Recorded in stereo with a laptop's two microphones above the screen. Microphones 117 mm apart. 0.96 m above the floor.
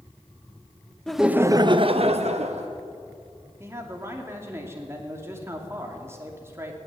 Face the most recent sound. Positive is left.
turn(degrees=-20)  # may be behind; listen again after turning